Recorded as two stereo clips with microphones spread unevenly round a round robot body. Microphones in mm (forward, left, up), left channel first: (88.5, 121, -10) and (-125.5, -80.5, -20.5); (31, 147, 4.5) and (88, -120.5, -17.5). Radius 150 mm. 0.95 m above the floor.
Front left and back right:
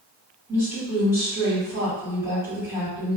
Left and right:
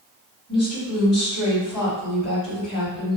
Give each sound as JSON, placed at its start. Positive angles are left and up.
{"t": 0.5, "sound": "a woman speaking", "azimuth_deg": 145, "distance_m": 1.9}